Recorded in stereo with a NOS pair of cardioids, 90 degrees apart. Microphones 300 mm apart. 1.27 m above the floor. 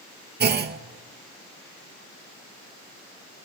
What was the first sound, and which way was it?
A clunk, 35° right.